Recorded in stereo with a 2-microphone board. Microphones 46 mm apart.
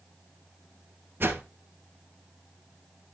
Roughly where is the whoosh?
Right.